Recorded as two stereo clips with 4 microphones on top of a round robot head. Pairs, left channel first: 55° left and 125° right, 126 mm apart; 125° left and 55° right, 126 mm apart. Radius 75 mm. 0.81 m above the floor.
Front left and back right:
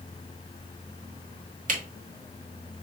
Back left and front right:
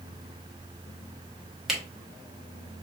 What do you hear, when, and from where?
1.7 s a camera shutter: 140° right, 1.6 m